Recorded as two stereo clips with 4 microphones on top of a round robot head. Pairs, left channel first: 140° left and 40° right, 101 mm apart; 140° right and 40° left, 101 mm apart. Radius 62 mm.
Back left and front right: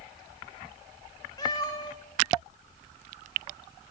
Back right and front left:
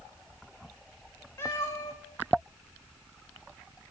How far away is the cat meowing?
About 1.2 m.